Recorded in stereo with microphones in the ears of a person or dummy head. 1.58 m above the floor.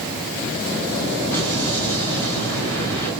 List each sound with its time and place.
1.3 s an explosion: 15° left (ahead or behind), 2.5 m